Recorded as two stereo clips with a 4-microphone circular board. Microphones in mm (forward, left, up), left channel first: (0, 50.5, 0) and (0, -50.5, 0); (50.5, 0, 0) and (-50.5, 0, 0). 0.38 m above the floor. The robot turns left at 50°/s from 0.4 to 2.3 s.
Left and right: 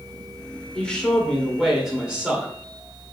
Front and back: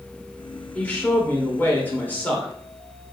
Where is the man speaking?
40° left, 1.3 m; by 2.5 s 40° right, 1.3 m.